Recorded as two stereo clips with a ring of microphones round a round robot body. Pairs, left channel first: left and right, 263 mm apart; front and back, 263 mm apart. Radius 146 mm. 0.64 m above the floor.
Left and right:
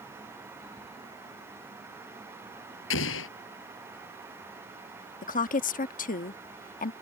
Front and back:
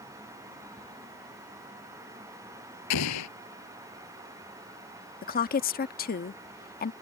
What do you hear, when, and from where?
2.9 s an explosion: 40° left
5.2 s a woman speaking: 40° left